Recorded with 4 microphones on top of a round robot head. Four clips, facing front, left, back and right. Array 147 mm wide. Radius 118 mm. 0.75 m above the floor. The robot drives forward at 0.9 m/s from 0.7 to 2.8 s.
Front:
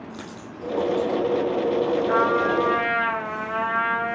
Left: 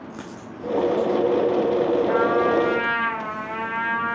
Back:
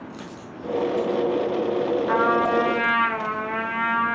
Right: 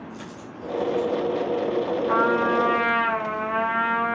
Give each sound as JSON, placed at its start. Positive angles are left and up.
{"t": 0.1, "sound": "a dropped coin", "azimuth_deg": 70, "distance_m": 3.5}
{"t": 2.1, "sound": "a trumpet", "azimuth_deg": -155, "distance_m": 2.5}